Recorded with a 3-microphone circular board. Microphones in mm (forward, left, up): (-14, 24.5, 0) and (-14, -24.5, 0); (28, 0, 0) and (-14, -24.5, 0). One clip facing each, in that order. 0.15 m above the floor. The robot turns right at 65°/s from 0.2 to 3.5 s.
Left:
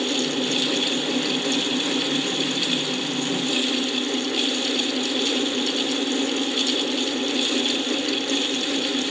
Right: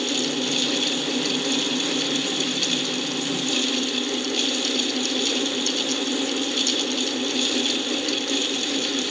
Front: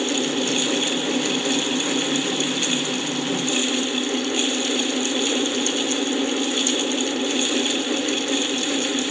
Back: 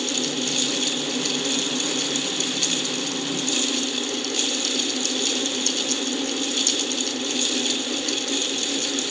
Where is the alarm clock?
I don't hear an alarm clock.